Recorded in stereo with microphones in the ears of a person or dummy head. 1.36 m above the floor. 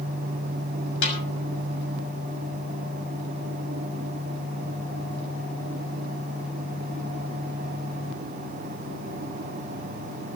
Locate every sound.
1.0 s a snare drum: 70° left (ahead or behind), 6.5 m